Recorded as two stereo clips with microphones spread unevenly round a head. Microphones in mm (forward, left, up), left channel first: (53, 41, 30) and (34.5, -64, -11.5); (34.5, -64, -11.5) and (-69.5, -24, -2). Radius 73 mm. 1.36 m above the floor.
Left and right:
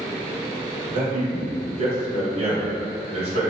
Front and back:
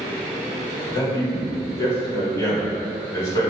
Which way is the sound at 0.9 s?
85° right.